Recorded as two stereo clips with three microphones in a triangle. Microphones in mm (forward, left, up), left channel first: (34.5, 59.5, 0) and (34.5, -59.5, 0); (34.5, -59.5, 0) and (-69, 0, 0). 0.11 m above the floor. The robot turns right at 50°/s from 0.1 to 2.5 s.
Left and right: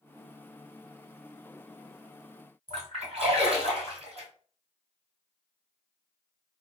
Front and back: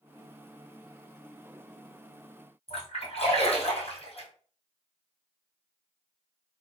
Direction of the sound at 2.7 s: 60° right.